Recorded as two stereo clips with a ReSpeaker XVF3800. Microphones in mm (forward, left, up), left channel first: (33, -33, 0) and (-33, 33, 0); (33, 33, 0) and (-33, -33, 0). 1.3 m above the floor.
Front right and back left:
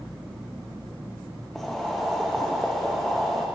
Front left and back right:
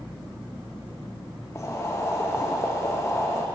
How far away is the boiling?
About 0.6 m.